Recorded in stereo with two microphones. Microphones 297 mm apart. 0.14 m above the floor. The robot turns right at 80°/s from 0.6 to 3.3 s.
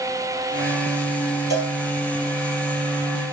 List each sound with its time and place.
1.5 s a cowbell: 10° right (ahead or behind), 4 m; by 1.8 s 30° right (ahead or behind), 4 m